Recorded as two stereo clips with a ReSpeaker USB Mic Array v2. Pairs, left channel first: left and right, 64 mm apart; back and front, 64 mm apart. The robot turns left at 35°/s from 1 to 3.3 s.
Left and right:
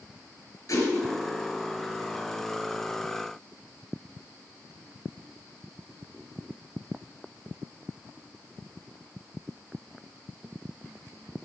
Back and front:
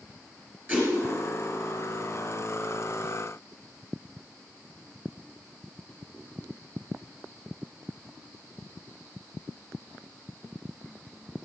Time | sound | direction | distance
0.7 | a whoosh | 60° left | 4.5 m